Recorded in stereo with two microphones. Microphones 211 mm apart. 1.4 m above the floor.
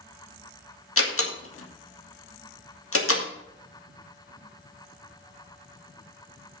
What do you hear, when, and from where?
1.0 s a door slam: 85° left, 1.9 m